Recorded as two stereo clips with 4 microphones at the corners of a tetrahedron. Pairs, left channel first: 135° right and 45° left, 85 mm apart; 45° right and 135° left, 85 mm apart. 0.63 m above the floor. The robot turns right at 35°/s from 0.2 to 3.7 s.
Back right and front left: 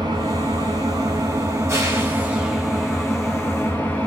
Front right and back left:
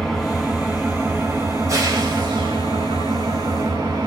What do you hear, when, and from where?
0.0 s an engine running: 40° left, 0.7 m; by 4.1 s 165° left, 0.7 m